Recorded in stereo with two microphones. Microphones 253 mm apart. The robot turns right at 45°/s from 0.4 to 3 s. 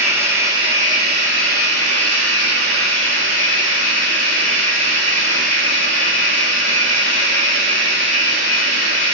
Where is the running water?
170° right, 0.7 m; by 9.2 s 50° right, 0.7 m.